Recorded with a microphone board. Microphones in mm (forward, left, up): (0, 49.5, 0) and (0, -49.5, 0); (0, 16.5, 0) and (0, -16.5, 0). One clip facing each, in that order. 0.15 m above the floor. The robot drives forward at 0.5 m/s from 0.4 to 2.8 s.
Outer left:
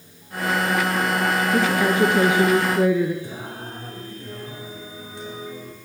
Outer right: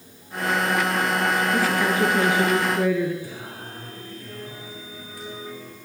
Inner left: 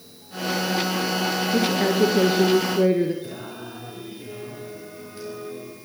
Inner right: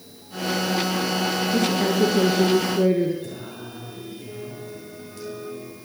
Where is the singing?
25° left (ahead or behind), 6 m.